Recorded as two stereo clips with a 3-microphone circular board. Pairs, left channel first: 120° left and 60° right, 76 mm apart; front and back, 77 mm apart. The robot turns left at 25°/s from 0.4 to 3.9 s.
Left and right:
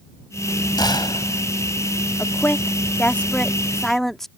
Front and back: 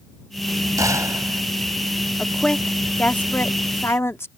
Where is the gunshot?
140° left; by 1.4 s 125° left.